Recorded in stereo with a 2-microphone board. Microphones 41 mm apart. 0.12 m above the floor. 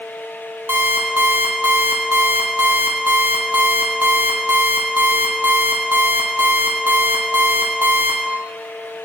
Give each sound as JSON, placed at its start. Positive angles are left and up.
{"t": 0.7, "sound": "an alarm clock", "side_deg": -60, "distance_m": 2.0}